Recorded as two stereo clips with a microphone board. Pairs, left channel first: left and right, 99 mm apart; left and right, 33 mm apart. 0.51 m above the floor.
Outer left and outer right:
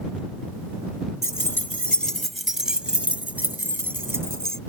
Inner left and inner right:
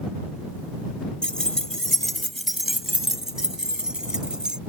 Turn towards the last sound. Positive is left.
turn(degrees=-25)  # may be behind; listen again after turning